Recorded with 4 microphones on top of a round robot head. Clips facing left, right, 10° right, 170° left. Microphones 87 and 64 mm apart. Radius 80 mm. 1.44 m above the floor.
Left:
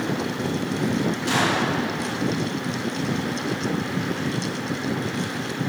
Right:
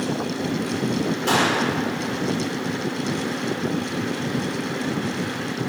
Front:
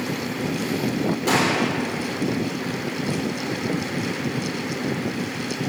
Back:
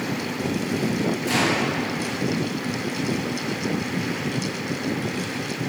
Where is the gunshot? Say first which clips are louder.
Right 3 dB, front 3 dB; 45° right, 6 m.